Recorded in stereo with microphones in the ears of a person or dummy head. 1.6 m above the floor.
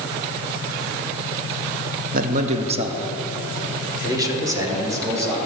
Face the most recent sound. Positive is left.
turn(degrees=-15)  # may be behind; listen again after turning